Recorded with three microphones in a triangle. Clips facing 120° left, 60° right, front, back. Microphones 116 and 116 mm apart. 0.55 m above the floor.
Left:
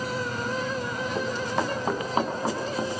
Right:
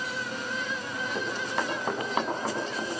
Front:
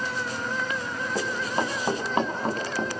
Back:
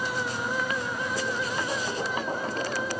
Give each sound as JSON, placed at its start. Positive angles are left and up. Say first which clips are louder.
{"t": 1.1, "sound": "running footsteps", "louder": "left 4 dB, front 5 dB", "azimuth_deg": 35, "distance_m": 7.5}